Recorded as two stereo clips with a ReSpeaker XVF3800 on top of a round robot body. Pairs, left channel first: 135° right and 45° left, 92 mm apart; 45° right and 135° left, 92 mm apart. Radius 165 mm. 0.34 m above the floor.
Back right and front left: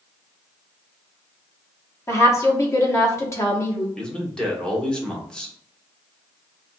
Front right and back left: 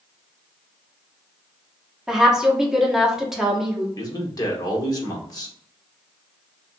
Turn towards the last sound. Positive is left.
turn(degrees=-60)